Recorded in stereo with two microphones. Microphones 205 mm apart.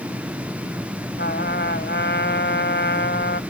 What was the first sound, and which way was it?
A trumpet, 60° left (ahead or behind).